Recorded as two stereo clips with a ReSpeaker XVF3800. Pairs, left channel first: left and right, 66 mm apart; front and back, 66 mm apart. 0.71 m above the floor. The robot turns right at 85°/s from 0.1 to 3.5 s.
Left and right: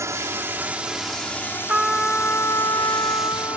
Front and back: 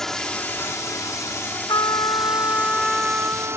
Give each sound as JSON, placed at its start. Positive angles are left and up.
{"t": 0.0, "sound": "a drone", "azimuth_deg": -80}
{"t": 1.7, "sound": "a trumpet", "azimuth_deg": -20}